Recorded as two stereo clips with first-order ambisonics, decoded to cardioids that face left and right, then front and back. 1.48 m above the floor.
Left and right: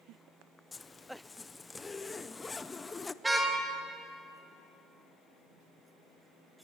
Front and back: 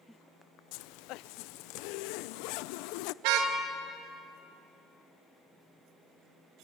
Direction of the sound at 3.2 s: 170° right.